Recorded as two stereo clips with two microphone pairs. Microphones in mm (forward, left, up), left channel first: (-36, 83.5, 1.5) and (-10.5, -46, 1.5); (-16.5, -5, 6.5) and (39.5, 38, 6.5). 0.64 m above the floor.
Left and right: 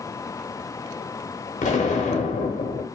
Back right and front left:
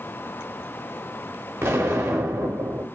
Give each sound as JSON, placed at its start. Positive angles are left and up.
{"t": 1.6, "sound": "an explosion", "azimuth_deg": 90, "distance_m": 0.6}